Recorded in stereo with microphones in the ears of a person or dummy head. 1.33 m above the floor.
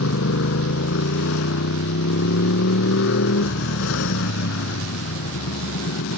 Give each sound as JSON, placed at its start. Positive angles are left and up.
{"t": 0.0, "sound": "a motorcycle", "side_deg": 80}